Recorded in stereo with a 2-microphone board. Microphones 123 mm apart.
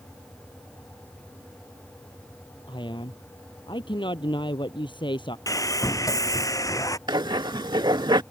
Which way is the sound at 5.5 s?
25° left (ahead or behind).